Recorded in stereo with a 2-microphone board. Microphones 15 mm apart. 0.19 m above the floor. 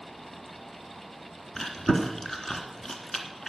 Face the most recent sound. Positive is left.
turn(degrees=35)  # may be behind; listen again after turning